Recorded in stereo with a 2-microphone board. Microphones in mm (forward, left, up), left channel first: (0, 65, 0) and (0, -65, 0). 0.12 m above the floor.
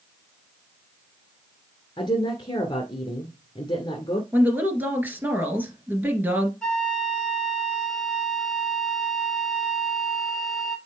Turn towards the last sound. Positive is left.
turn(degrees=5)  # may be behind; listen again after turning